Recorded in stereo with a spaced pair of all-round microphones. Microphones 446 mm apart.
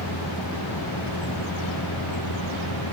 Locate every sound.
0.0 s a vehicle: 65° left (ahead or behind)